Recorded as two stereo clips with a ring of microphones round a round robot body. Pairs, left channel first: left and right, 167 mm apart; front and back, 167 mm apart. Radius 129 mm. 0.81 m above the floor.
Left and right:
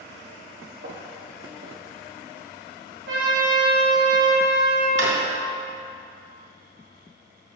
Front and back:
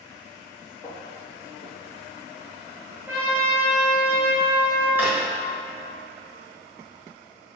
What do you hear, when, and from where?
0.8 s footsteps: 85° right, 1.9 m; by 2.5 s 65° right, 2.5 m
3.1 s a trumpet: 100° right, 1.8 m
5.0 s a drawer: 95° right, 1.2 m